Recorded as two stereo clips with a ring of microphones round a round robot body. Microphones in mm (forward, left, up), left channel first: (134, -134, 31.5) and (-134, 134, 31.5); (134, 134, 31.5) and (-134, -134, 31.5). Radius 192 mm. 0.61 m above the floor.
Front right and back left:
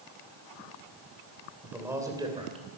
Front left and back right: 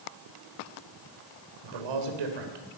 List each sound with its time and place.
1.6 s a man speaking: 135° right, 3 m; by 2.6 s 150° right, 3 m